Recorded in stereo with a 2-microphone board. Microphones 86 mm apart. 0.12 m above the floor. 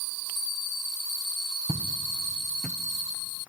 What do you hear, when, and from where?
1.7 s footsteps: 50° right (ahead or behind), 1.5 m; by 2.8 s 5° right (ahead or behind), 1.2 m